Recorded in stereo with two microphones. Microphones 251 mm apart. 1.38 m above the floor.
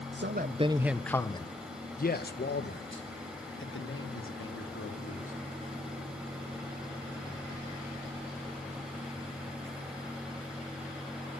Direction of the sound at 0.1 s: 50° right (ahead or behind).